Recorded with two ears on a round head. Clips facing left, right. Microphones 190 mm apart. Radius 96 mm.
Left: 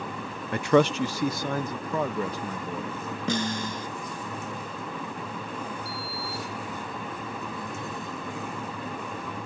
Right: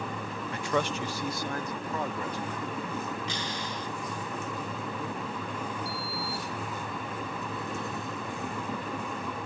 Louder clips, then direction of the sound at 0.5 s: Left 10 dB; 45° left (ahead or behind).